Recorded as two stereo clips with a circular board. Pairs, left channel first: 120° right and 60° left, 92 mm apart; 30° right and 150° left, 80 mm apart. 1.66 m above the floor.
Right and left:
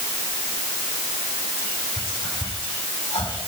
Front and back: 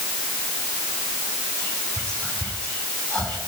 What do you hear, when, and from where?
1.6 s whispering: 110° right, 4 m